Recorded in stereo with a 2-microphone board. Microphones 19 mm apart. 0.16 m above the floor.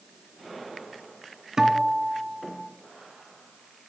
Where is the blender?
I don't hear a blender.